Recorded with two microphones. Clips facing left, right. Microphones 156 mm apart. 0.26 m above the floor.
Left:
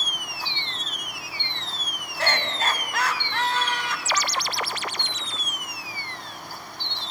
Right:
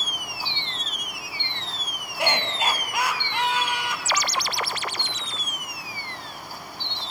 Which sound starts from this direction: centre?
Laughter, at 2.2 s.